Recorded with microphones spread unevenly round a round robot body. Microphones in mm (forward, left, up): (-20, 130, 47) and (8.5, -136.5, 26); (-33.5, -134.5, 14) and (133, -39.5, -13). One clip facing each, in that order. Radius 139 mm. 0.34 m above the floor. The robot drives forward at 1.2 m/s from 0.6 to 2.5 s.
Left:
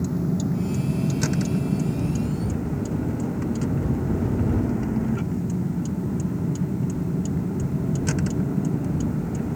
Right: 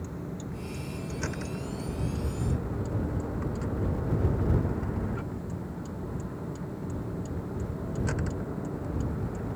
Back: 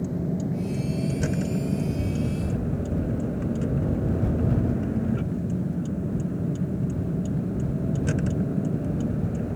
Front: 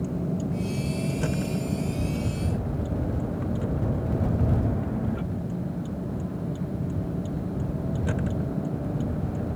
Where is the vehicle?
125° left; by 9.6 s 140° left.